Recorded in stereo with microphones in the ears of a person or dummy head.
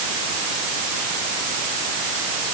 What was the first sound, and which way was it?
Only background noise.